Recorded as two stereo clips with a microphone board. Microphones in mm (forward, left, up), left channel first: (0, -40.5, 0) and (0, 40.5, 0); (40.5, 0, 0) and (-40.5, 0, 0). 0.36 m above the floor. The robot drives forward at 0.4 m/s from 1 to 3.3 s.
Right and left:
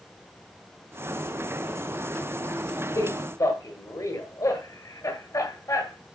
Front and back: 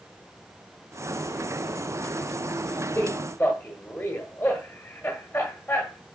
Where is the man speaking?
65° right, 1.7 m; by 6.0 s 70° right, 1.6 m.